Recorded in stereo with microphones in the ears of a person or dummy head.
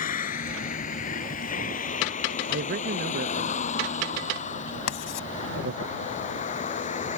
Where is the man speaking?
50° right (ahead or behind).